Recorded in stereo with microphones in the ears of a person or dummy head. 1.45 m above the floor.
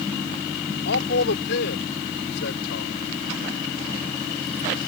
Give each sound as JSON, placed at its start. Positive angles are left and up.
{"t": 0.8, "sound": "a man speaking", "side_deg": 65}